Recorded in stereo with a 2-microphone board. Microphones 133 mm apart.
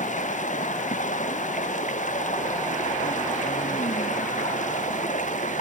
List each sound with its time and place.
0.0 s running water: 70° left (ahead or behind)